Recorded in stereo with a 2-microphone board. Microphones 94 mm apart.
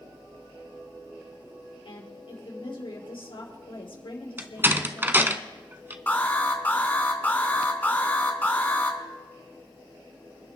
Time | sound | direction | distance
1.9 | a woman speaking | 65° left (ahead or behind) | 3.5 m
4.4 | a door slam | 25° right (ahead or behind) | 0.8 m
6.1 | an alarm | 20° left (ahead or behind) | 1.9 m